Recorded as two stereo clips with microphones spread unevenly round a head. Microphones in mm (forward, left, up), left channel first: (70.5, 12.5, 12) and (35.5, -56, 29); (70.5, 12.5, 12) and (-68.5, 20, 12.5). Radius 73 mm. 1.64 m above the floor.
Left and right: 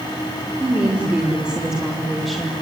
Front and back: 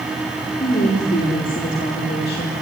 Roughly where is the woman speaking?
Ahead right.